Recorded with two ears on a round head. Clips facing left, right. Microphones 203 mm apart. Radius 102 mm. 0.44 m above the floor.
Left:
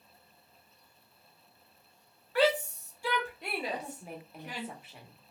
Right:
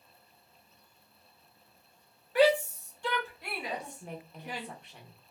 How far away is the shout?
About 0.8 m.